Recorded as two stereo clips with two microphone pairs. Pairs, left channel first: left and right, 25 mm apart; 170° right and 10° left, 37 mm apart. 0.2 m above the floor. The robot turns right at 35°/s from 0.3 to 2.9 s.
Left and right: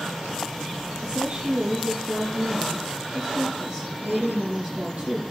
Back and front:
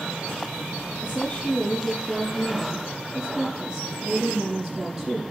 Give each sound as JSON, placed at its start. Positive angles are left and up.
{"t": 1.0, "sound": "a woman speaking", "azimuth_deg": -125, "distance_m": 6.0}